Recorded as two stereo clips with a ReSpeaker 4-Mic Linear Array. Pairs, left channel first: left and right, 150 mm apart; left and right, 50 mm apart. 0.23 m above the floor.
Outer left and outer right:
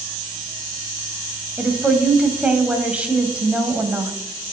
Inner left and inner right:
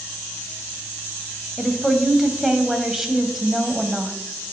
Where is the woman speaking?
10° right (ahead or behind), 1.0 m.